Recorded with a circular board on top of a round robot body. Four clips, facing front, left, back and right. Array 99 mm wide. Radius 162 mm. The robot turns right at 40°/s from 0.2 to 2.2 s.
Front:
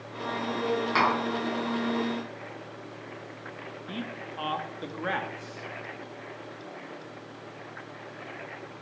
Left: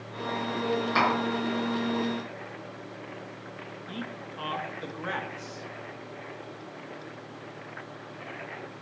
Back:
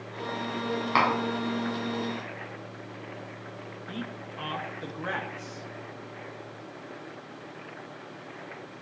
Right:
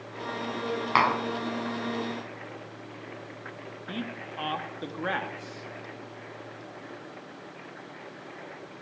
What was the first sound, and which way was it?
Tapping, 110° right.